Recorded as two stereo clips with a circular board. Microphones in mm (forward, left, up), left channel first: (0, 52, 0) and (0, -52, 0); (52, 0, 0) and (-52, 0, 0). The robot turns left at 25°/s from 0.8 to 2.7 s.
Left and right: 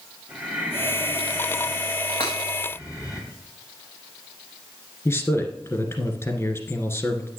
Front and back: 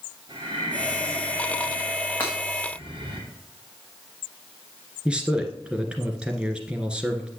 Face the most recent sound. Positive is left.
turn(degrees=110)